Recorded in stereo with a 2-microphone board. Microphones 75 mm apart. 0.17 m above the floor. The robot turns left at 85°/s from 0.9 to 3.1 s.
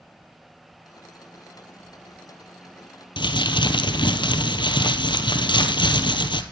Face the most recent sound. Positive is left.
turn(degrees=75)  # may be behind; listen again after turning